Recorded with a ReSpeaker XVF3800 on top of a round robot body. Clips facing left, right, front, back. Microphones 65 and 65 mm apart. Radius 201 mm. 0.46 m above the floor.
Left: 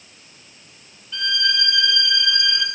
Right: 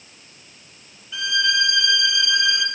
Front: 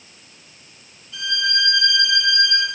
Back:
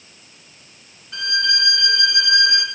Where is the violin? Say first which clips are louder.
Right 2 dB, back 1 dB; 170° right, 2 m.